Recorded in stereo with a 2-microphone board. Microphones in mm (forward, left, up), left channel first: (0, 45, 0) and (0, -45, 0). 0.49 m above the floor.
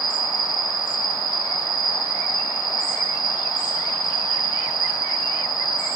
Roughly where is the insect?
Left.